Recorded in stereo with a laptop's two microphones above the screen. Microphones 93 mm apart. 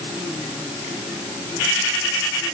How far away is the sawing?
I don't hear sawing.